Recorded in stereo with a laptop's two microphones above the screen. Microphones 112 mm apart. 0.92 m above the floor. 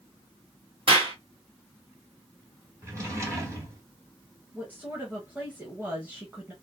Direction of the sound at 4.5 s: 15° right (ahead or behind).